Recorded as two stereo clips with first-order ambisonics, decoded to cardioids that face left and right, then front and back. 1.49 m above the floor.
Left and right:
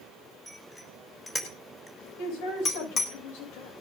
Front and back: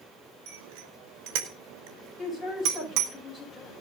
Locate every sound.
0.5 s a bicycle bell: 175° left, 4.5 m; by 3.1 s 155° left, 3 m
2.2 s a man speaking: 80° left, 8 m